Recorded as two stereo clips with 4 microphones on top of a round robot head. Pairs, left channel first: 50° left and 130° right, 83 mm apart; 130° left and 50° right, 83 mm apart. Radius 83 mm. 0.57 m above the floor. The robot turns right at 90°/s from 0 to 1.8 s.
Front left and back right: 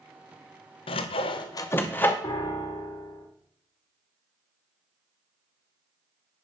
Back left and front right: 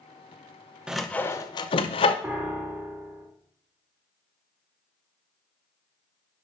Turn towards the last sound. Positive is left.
turn(degrees=25)